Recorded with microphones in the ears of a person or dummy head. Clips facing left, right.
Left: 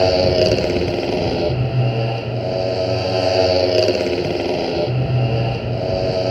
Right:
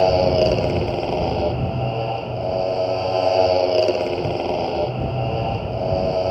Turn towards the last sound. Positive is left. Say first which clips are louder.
# left 2 dB
turn(degrees=20)  # may be behind; listen again after turning